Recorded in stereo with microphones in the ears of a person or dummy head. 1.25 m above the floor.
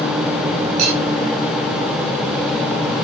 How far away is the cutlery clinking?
About 5.5 m.